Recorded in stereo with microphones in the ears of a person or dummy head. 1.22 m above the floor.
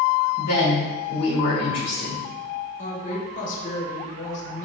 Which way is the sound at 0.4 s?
60° left (ahead or behind).